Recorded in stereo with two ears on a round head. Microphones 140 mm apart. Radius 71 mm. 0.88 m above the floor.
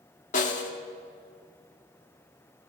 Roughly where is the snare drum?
Left.